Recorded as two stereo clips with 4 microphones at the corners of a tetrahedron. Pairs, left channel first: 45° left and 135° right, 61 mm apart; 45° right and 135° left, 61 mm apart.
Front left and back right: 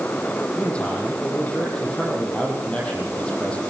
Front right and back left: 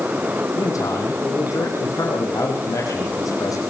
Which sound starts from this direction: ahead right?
A man speaking, at 0.6 s.